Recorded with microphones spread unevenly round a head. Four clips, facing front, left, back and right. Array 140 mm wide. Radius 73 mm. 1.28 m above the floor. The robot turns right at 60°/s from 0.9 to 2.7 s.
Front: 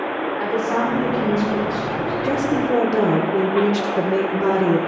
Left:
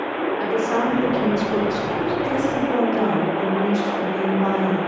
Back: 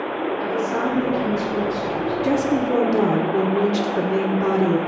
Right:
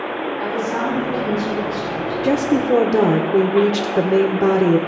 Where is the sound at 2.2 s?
110° right, 1.2 m; by 4.8 s 80° right, 1.2 m.